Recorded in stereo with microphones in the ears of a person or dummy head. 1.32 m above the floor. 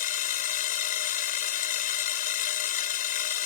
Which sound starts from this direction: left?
A machine running, at 0.0 s.